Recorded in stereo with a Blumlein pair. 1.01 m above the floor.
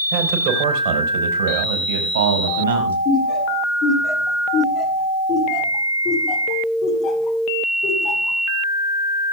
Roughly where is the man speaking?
Ahead right.